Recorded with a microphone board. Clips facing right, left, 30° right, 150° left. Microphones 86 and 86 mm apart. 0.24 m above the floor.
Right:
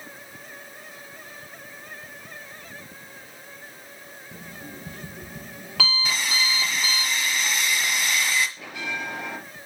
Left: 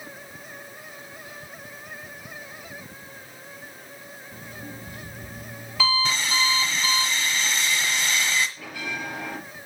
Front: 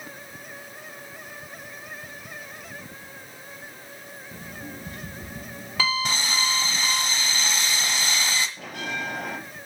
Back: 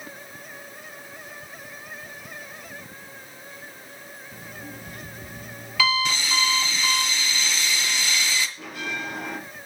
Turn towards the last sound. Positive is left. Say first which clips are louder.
# right 1 dB, even
turn(degrees=-20)